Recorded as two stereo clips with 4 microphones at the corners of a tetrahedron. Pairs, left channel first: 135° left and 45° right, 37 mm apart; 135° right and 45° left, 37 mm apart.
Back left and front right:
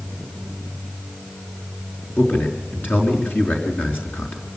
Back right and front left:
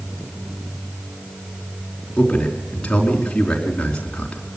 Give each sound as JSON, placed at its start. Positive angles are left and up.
{"t": 2.2, "sound": "a man speaking", "azimuth_deg": 160, "distance_m": 4.5}